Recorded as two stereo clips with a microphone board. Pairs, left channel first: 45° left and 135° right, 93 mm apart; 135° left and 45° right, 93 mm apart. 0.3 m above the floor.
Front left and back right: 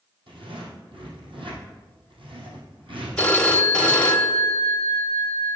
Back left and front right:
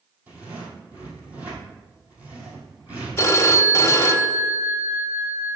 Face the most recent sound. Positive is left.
turn(degrees=110)